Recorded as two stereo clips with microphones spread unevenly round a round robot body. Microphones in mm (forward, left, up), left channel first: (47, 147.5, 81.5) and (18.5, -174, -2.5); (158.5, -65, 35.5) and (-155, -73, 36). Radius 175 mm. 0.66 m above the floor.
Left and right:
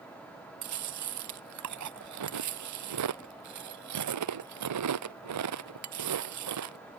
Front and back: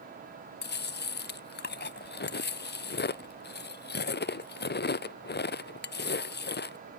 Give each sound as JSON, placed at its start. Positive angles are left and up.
{"t": 0.6, "sound": "chewing", "azimuth_deg": -55}